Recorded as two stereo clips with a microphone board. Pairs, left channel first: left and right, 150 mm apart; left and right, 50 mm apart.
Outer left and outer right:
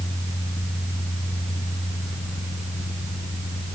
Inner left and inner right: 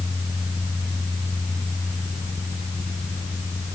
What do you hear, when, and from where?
Only background noise.